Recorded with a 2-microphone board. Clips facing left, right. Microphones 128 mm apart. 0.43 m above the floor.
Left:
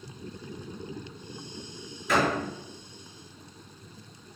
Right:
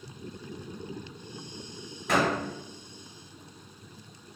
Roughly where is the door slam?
Right.